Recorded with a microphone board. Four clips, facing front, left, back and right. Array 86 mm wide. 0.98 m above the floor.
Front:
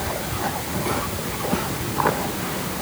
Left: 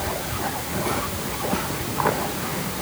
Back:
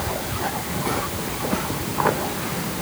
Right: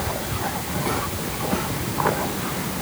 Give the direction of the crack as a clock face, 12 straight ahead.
I don't hear a crack.